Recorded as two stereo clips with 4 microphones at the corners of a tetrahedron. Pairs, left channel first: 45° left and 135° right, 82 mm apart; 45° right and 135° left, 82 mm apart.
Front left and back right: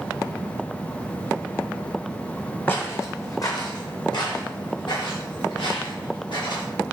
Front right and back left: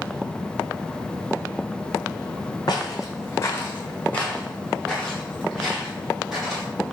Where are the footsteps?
15° right, 0.8 m; by 6.7 s 50° left, 2.5 m.